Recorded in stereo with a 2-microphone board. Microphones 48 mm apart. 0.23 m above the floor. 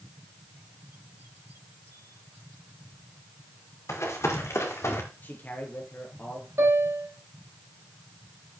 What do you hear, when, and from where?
3.9 s running footsteps: 85° left, 5 m; by 5.0 s 70° left (ahead or behind), 4.5 m
5.2 s a man speaking: 40° left (ahead or behind), 4 m
6.6 s a piano: 70° right (ahead or behind), 4 m